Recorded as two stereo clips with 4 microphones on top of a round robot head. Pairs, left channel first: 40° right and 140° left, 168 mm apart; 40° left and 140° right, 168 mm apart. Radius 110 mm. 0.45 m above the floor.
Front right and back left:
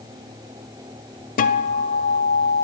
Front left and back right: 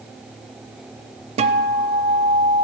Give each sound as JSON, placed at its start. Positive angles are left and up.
{"t": 1.4, "sound": "a guitar", "azimuth_deg": -85, "distance_m": 0.6}